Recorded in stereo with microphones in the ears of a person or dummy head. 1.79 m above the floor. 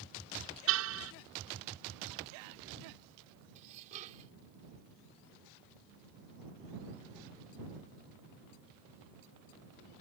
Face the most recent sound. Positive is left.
turn(degrees=-40)  # may be behind; listen again after turning